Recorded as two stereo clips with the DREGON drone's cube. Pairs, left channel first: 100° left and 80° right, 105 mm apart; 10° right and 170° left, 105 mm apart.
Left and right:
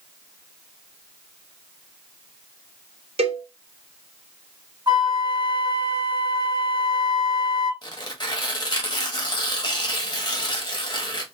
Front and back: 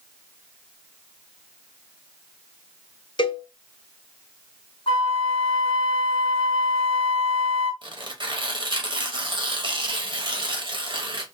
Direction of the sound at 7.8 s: 140° left.